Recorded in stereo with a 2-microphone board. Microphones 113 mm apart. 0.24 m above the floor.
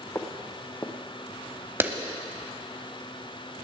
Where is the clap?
20° right (ahead or behind), 0.9 m.